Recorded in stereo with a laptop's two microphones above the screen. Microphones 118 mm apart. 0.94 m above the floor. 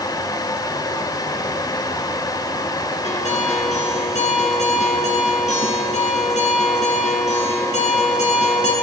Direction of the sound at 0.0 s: 30° left (ahead or behind).